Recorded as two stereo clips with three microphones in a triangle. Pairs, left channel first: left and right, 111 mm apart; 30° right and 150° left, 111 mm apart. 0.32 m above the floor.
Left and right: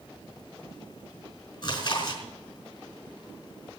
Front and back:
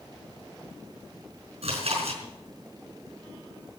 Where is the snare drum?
I don't hear a snare drum.